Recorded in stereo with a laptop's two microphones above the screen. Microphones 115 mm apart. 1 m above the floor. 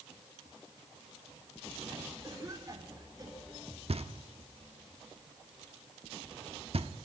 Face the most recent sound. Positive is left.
turn(degrees=-60)  # may be behind; listen again after turning